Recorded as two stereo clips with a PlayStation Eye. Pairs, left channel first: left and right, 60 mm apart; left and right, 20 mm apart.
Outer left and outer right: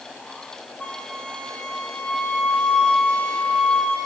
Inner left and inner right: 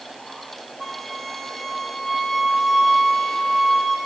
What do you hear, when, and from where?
0.8 s a flute: 15° left (ahead or behind), 1.5 m